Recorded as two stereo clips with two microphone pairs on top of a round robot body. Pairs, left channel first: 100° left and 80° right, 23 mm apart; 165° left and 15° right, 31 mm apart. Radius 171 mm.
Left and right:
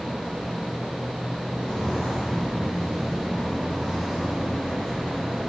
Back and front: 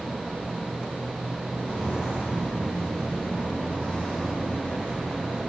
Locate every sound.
1.5 s footsteps: 160° left, 0.9 m; by 5.5 s 150° right, 3 m